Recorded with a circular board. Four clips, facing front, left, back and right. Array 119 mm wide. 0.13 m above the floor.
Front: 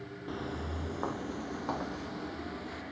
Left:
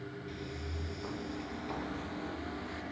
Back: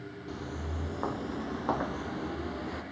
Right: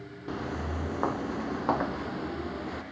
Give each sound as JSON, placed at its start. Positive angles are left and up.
{"t": 0.3, "sound": "footsteps", "azimuth_deg": -75, "distance_m": 1.1}